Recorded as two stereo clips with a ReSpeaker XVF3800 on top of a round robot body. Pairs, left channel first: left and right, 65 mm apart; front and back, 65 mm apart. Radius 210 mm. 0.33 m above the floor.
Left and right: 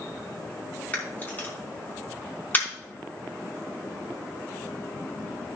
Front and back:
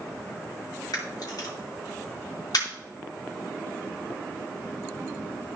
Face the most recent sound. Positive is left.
turn(degrees=25)